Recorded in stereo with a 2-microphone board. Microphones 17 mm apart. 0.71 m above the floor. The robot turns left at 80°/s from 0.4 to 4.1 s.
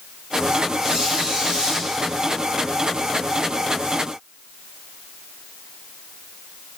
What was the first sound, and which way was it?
A squeak, 45° right.